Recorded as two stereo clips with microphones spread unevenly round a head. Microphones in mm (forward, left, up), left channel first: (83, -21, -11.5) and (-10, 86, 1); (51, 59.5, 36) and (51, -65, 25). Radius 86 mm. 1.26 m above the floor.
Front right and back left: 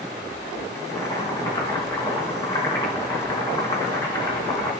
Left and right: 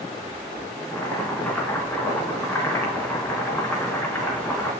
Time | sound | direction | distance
0.9 | boiling | 15° left | 2.5 m